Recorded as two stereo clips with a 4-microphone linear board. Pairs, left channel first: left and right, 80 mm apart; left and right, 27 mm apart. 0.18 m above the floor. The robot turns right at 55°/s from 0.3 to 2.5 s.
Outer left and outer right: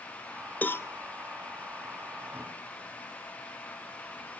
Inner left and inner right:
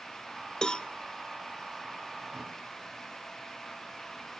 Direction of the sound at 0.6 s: 20° left (ahead or behind).